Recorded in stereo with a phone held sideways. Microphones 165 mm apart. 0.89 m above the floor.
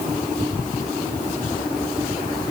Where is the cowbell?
I don't hear a cowbell.